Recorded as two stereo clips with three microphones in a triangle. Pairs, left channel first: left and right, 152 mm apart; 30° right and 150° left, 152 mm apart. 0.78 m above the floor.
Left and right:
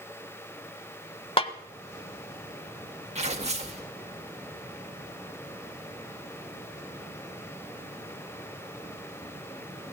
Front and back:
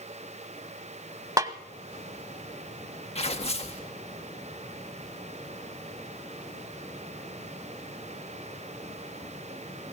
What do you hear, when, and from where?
1.4 s a snare drum: 100° left, 0.7 m
3.1 s tearing paper: 65° right, 1.5 m